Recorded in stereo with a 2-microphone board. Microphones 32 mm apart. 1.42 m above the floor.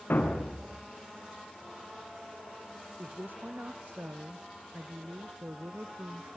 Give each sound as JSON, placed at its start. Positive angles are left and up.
{"t": 0.1, "sound": "a thud", "side_deg": 75, "distance_m": 4.5}
{"t": 3.0, "sound": "a woman speaking", "side_deg": -70, "distance_m": 0.8}